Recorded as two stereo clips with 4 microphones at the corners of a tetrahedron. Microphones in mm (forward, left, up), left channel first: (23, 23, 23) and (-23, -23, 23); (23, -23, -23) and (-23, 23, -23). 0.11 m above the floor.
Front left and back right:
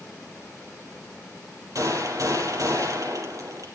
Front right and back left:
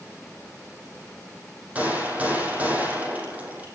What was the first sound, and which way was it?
A gunshot, 160° right.